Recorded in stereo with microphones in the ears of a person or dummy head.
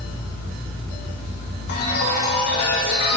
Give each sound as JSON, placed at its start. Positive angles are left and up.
{"t": 1.7, "sound": "a chime", "side_deg": 50, "distance_m": 2.5}